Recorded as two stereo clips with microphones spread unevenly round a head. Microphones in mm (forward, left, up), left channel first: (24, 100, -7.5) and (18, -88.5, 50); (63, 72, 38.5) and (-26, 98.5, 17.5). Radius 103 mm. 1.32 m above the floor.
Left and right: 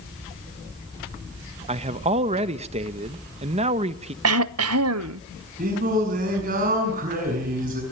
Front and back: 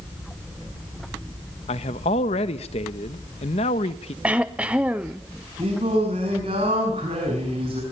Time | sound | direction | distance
1.7 | a man speaking | 35° right | 1.1 m
4.2 | throat clearing | 115° right | 0.6 m
5.6 | singing | 140° right | 7 m